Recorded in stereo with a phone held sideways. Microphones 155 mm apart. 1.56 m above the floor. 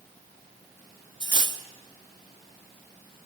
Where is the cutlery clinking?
30° right (ahead or behind), 0.9 m.